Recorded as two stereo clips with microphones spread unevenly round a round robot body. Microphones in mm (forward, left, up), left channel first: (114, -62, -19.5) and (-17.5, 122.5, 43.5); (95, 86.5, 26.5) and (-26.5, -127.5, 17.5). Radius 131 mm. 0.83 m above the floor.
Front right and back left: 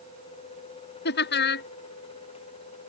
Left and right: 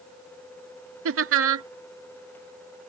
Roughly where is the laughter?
Right.